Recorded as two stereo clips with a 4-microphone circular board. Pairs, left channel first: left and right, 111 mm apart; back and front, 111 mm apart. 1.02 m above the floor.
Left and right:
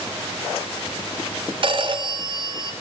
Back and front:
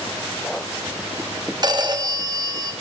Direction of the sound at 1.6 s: 50° right.